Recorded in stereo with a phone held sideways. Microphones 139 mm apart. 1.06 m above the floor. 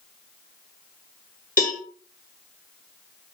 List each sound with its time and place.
1.6 s a cowbell: 75° left (ahead or behind), 2.5 m